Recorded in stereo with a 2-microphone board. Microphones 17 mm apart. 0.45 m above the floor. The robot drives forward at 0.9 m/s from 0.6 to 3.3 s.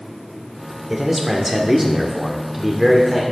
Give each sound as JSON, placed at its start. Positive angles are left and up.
{"t": 0.9, "sound": "a man speaking", "side_deg": -10, "distance_m": 1.7}